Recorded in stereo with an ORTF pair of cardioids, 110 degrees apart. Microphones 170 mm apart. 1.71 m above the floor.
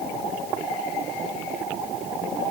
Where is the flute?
I don't hear a flute.